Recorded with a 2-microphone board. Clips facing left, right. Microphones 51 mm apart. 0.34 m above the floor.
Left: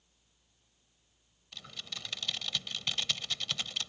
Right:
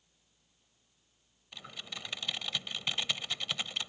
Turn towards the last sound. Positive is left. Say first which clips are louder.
# right 1 dB
turn(degrees=-15)  # may be behind; listen again after turning